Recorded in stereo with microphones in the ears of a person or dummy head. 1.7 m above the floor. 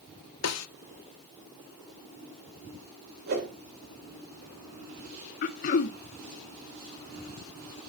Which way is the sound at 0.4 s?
85° left.